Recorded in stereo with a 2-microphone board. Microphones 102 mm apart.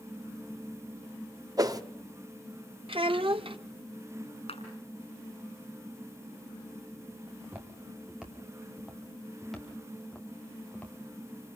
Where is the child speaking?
60° right (ahead or behind), 0.7 m.